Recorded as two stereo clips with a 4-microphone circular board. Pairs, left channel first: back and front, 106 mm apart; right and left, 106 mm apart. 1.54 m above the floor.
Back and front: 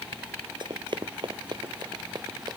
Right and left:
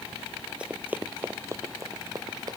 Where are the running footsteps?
15° left; by 2.6 s 45° left.